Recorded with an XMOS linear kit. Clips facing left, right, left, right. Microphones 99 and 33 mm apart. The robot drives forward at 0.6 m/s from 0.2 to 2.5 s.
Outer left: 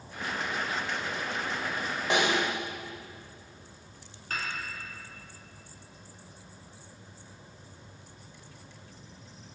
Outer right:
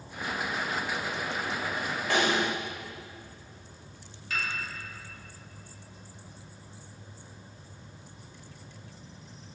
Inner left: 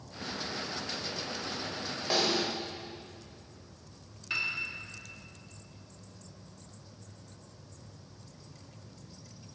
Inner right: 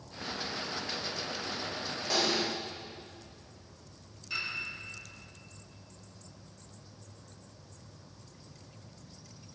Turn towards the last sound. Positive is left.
turn(degrees=40)  # may be behind; listen again after turning